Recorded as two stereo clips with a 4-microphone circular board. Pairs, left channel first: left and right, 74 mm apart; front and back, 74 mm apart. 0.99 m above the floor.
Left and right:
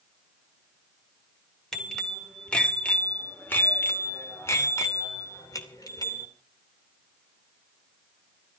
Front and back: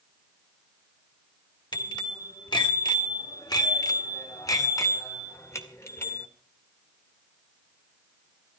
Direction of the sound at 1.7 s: 5° left.